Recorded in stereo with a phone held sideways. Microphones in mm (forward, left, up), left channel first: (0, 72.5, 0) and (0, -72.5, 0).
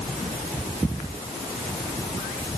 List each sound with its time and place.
Only background noise.